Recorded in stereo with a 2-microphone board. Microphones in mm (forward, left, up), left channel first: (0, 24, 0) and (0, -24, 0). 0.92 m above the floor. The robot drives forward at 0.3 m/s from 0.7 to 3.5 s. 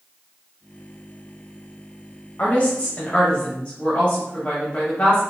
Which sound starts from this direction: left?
A woman speaking, at 2.4 s.